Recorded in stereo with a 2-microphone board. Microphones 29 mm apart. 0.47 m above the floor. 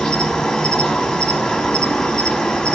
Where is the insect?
15° left (ahead or behind), 1.2 m.